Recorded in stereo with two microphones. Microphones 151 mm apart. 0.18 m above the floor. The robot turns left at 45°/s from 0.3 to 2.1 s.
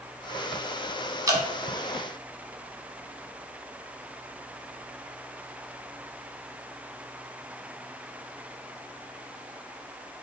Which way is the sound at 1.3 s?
25° right (ahead or behind).